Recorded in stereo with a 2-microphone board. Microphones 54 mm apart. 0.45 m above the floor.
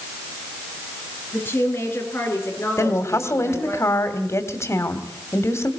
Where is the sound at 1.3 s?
40° left (ahead or behind), 6.5 m; by 3.8 s 50° left (ahead or behind), 8.5 m.